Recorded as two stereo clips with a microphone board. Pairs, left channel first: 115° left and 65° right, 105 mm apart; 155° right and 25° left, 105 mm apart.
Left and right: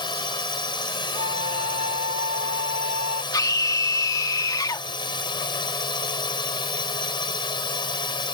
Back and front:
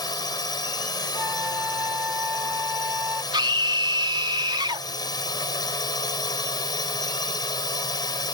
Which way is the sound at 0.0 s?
155° left.